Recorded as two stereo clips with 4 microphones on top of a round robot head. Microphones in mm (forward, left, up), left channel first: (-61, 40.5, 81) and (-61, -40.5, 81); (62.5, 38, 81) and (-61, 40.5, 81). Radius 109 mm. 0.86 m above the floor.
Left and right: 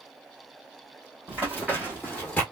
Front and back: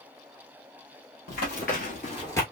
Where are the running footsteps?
10° right, 1.7 m; by 2.4 s 40° left, 0.8 m.